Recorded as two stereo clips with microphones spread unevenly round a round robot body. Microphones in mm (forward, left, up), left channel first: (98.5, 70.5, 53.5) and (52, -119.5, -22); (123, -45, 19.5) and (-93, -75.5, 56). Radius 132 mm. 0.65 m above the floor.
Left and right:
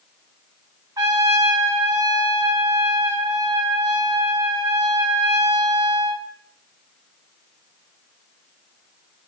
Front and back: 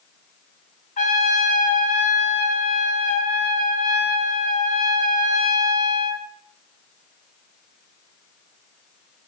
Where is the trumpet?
40° right, 2.5 m.